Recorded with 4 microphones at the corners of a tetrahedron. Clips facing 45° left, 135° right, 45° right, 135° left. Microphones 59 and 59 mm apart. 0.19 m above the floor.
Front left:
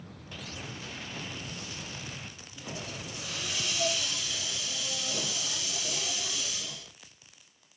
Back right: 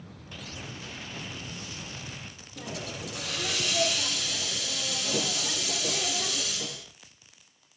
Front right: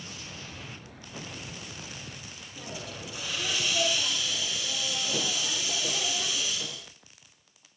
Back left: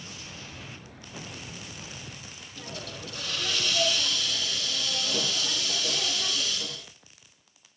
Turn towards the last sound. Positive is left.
turn(degrees=-120)